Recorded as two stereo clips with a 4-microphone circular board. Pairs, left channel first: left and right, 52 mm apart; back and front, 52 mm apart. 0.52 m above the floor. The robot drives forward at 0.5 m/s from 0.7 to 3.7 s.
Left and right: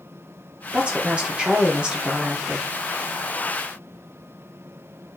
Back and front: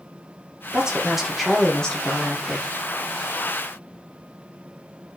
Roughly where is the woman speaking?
Ahead right.